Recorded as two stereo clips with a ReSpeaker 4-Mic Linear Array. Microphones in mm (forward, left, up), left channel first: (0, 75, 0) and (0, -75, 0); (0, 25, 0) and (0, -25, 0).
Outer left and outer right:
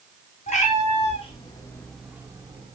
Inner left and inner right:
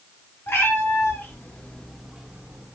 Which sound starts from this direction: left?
A cat meowing, at 0.5 s.